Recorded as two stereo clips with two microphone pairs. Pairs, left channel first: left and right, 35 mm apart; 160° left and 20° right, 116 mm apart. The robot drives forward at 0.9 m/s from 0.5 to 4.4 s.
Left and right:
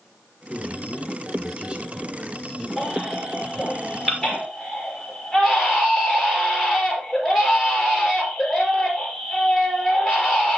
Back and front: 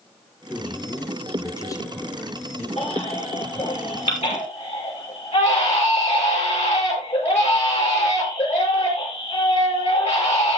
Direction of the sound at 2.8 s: 170° right.